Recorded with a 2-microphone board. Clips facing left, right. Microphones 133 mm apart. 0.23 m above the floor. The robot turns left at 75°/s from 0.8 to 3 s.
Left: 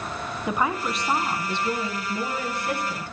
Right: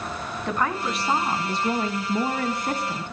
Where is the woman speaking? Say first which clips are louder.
Even; 10° left, 1.7 m; by 3.1 s 155° right, 1.7 m.